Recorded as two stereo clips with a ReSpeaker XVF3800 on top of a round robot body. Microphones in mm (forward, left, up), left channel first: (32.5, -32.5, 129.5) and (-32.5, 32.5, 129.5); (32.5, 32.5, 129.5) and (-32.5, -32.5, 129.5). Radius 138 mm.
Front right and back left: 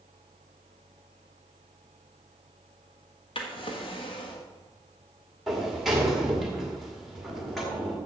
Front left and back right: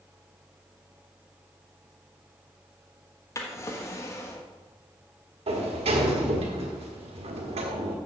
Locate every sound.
3.4 s a drawer: 15° right, 1.3 m
5.5 s a sliding door: 135° right, 1.5 m